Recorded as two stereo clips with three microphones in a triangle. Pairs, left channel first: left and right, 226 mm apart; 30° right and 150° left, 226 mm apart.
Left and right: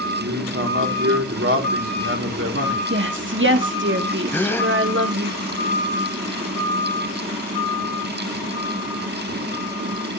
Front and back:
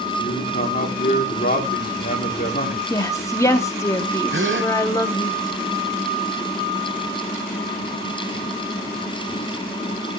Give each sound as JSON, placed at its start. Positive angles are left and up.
{"t": 0.2, "sound": "a man speaking", "azimuth_deg": -75, "distance_m": 2.0}
{"t": 2.9, "sound": "a woman speaking", "azimuth_deg": -105, "distance_m": 1.5}
{"t": 4.3, "sound": "a gasp", "azimuth_deg": 170, "distance_m": 0.9}